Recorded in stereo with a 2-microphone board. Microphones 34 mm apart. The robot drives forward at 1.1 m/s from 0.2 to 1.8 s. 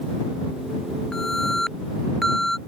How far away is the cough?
No cough in this recording.